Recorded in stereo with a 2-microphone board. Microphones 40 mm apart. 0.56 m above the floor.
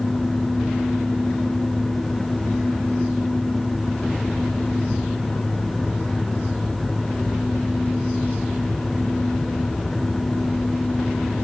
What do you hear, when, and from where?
Only background noise.